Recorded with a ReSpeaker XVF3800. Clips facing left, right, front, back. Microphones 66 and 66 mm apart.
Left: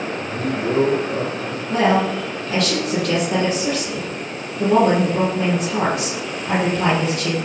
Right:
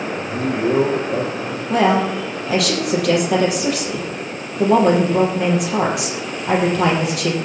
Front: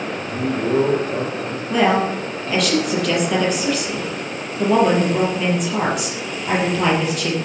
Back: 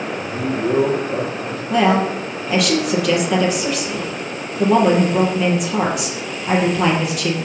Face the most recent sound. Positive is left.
turn(degrees=-95)